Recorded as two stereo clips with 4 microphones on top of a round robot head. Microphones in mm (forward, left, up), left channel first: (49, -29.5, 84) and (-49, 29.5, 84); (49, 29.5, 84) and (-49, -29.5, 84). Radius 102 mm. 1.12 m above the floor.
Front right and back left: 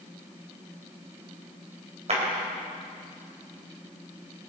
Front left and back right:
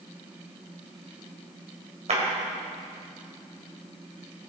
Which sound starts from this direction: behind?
A clap, at 2.1 s.